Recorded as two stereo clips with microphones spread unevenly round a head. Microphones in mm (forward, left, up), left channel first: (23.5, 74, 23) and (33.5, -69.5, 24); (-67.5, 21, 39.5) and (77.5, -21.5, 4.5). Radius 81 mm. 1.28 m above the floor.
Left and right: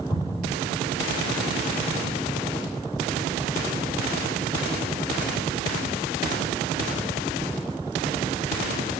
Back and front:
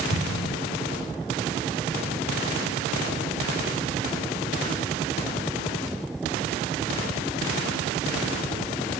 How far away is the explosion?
About 1.2 m.